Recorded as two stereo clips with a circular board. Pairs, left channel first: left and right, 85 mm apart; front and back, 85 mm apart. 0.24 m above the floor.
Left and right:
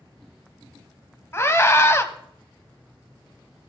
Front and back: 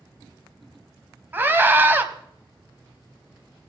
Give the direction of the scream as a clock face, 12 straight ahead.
8 o'clock.